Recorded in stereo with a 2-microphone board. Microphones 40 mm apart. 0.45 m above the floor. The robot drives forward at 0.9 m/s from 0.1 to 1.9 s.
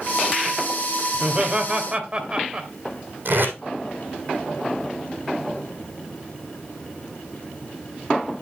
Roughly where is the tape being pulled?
Right.